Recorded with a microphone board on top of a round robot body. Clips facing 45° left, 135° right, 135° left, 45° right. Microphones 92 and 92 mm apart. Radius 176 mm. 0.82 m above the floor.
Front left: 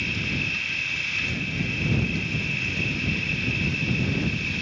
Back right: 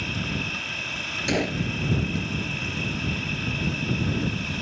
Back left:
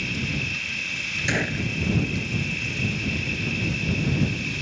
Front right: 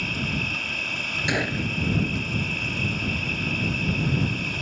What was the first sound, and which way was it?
An insect, 85° right.